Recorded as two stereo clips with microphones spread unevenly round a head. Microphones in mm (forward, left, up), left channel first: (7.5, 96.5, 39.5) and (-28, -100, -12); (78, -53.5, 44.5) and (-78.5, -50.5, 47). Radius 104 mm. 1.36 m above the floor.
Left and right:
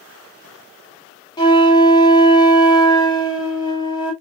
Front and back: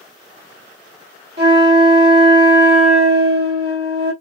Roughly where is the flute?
Behind left.